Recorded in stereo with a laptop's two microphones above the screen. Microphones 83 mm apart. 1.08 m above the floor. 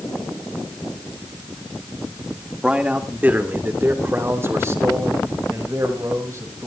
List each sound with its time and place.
2.6 s a man speaking: 10° right (ahead or behind), 2.5 m; by 6.7 s 40° right (ahead or behind), 7 m